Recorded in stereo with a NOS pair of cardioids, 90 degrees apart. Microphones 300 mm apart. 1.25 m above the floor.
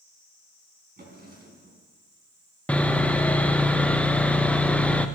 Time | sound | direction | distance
1.0 | a drawer | 30° right | 4 m
2.7 | sawing | 5° left | 0.9 m